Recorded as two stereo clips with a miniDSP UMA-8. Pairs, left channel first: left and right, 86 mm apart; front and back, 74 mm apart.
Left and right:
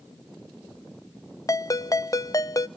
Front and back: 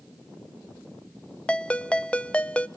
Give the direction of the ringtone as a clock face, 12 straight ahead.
10 o'clock.